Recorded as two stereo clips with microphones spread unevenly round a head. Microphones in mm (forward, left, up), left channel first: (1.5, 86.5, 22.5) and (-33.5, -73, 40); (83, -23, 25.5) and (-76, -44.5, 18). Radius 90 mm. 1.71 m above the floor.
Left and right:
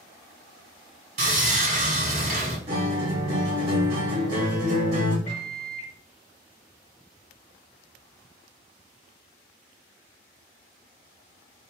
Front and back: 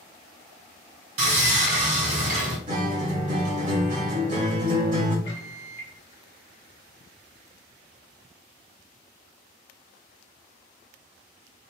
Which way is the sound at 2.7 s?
130° right.